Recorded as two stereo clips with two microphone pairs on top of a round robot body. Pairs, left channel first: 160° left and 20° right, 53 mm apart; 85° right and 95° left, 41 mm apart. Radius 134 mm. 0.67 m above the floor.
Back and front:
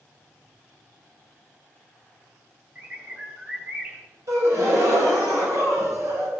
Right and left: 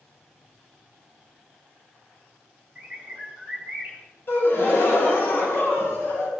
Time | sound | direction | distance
2.8 | a bird | 30° left | 4.5 m
4.3 | a gasp | 45° right | 3 m